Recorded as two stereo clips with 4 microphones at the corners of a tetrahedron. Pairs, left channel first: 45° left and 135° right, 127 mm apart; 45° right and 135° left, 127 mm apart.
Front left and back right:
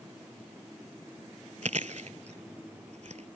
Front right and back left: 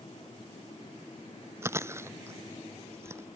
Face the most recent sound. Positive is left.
turn(degrees=-155)